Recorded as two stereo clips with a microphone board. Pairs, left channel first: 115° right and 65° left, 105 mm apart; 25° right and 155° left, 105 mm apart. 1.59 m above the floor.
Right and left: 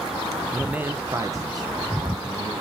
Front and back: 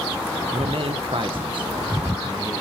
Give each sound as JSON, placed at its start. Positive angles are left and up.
{"t": 0.5, "sound": "a man speaking", "azimuth_deg": 155, "distance_m": 0.6}